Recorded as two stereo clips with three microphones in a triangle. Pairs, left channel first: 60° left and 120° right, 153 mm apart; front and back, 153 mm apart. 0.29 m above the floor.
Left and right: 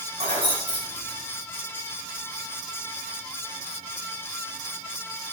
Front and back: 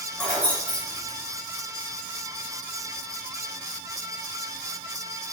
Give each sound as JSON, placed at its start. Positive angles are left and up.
{"t": 0.2, "sound": "keys jangling", "azimuth_deg": -85, "distance_m": 1.7}